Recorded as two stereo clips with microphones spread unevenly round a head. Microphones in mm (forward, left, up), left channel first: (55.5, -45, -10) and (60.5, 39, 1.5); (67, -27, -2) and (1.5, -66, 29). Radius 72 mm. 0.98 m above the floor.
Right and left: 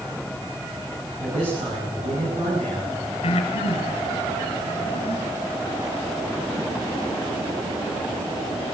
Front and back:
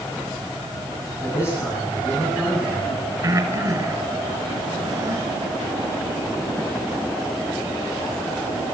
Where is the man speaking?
130° left, 9 m.